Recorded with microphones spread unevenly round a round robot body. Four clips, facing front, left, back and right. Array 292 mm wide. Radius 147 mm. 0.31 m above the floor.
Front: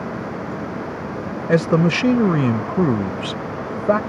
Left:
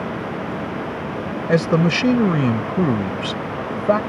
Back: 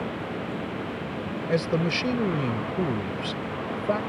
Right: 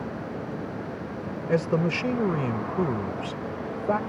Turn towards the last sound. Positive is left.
turn(degrees=45)